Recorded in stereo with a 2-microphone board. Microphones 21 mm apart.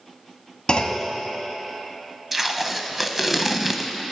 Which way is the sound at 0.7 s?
45° left (ahead or behind).